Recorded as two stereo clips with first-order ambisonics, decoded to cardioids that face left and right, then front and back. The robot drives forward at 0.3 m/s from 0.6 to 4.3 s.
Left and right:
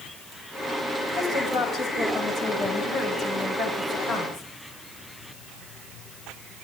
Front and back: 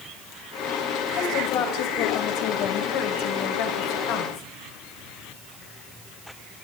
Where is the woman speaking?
10° right, 8 m; by 4.5 s 15° right, 7 m.